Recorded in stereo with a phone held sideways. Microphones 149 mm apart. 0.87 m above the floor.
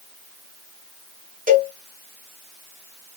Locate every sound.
1.5 s a cowbell: 70° right (ahead or behind), 1.4 m